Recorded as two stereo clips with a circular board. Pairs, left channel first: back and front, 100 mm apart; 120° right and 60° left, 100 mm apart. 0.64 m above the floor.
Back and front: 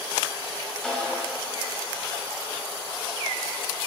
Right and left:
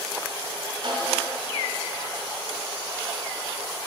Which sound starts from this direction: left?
A snare drum, at 0.8 s.